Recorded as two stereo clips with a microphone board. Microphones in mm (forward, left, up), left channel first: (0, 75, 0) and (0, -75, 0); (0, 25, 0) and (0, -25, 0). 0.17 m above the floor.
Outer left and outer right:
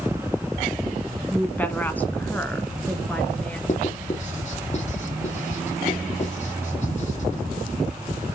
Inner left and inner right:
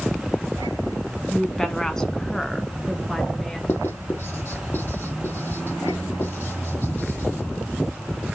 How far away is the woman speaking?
About 1.4 m.